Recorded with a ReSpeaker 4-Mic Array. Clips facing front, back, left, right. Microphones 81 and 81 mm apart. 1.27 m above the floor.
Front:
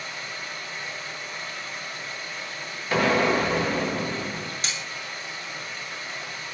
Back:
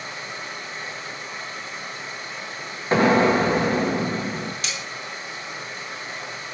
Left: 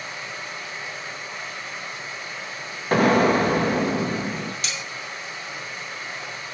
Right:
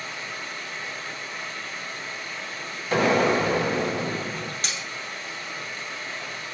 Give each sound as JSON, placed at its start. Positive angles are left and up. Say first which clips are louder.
{"t": 0.0, "sound": "running water", "louder": "back 2 dB, left 1 dB", "azimuth_deg": 150, "distance_m": 1.2}
{"t": 2.9, "sound": "an explosion", "louder": "back 4 dB, left 3 dB", "azimuth_deg": 125, "distance_m": 0.8}
{"t": 4.6, "sound": "cutlery clinking", "louder": "back 1 dB, left 1 dB", "azimuth_deg": -50, "distance_m": 0.8}